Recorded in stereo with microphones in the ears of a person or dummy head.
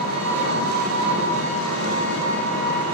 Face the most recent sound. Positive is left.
turn(degrees=-55)  # may be behind; listen again after turning